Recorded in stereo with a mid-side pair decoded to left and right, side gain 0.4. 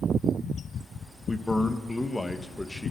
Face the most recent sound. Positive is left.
turn(degrees=15)